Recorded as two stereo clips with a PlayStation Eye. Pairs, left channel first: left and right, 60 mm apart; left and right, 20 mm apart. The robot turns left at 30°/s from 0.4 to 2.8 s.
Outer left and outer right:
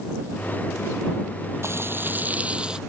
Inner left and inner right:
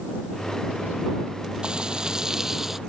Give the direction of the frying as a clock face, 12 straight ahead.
4 o'clock.